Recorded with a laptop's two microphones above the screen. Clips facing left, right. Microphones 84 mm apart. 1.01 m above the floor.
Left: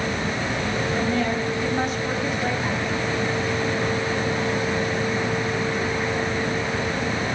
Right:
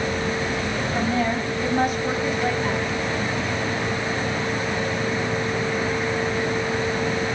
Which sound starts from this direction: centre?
A woman speaking, at 0.9 s.